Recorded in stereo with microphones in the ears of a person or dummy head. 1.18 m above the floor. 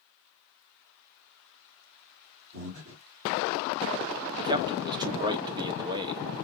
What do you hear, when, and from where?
2.5 s breathing: 70° right (ahead or behind), 1.9 m
4.4 s a man speaking: 20° right (ahead or behind), 0.8 m